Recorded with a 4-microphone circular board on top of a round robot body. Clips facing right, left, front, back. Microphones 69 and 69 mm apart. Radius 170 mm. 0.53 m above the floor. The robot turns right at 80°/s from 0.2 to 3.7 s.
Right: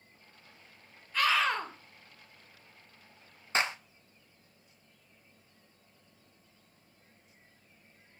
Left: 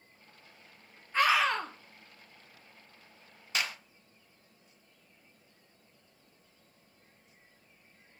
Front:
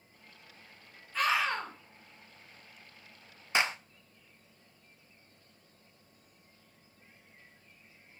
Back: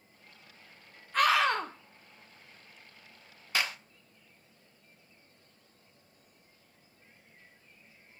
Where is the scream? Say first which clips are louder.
Left 2 dB, back 4 dB; 150° left, 2.5 m; by 1.7 s 160° right, 2.5 m.